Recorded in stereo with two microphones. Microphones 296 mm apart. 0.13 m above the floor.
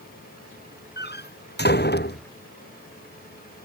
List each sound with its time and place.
1.0 s a door slam: 35° left (ahead or behind)